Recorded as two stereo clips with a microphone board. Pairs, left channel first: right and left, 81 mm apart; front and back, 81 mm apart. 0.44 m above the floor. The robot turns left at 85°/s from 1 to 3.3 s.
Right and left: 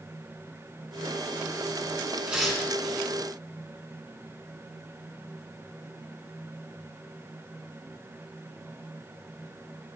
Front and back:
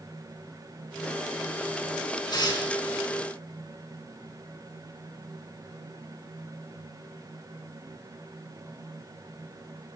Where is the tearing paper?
20° left, 4 m; by 2.7 s 20° right, 4 m.